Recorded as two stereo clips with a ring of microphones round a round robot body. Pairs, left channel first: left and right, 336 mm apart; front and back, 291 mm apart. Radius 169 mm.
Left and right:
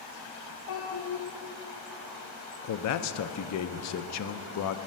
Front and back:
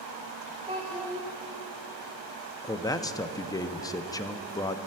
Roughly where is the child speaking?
Left.